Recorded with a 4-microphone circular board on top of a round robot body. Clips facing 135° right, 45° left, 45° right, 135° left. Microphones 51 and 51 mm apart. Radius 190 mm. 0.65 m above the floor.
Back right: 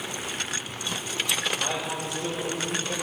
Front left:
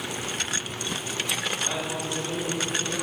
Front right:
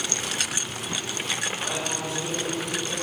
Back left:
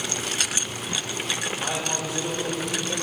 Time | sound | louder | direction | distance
1.6 | a man speaking | even, back left 1 dB | 145° right | 4.5 m